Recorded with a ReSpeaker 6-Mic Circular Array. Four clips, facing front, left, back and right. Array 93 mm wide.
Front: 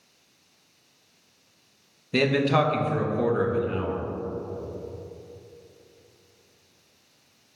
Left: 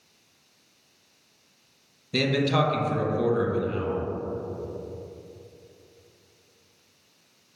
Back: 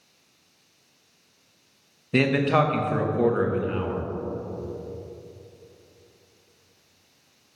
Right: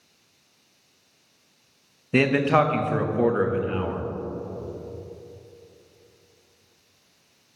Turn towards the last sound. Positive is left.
turn(degrees=-105)